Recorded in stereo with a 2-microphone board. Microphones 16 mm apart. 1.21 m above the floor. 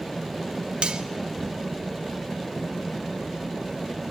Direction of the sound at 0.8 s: 50° right (ahead or behind).